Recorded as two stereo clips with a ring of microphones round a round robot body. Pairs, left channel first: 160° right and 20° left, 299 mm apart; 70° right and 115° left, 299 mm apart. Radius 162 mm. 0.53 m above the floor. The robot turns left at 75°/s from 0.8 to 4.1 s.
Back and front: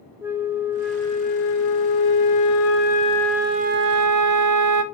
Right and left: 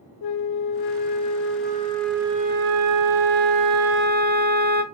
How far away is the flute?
About 0.8 m.